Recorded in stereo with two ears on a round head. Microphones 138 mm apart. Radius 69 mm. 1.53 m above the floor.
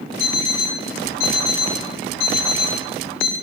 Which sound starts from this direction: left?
An alarm clock, at 0.2 s.